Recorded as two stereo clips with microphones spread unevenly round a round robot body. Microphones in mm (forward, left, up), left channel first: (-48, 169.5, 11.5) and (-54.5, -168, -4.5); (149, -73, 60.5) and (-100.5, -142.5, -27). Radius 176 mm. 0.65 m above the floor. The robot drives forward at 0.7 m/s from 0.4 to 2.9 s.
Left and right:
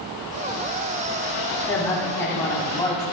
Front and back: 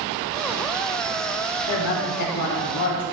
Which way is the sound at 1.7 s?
5° left.